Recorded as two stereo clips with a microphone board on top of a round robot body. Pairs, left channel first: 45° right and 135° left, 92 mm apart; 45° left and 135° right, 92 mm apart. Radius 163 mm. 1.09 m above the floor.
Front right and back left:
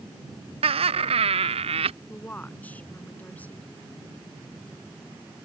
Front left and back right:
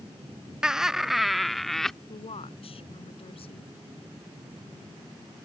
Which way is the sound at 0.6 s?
140° left.